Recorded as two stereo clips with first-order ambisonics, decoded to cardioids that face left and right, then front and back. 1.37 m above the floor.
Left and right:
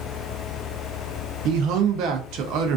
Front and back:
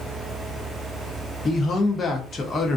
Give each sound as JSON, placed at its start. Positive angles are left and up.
{"t": 1.4, "sound": "a man speaking", "azimuth_deg": -70, "distance_m": 0.5}